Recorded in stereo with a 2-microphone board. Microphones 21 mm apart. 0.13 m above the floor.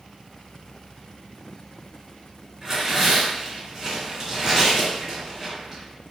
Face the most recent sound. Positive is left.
turn(degrees=-20)  # may be behind; listen again after turning